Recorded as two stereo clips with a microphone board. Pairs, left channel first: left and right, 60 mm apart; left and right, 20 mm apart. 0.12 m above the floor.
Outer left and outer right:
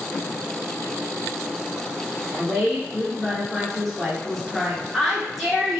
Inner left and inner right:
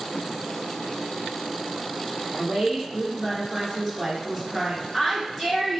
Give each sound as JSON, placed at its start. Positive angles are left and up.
{"t": 2.4, "sound": "a woman speaking", "side_deg": 5, "distance_m": 1.5}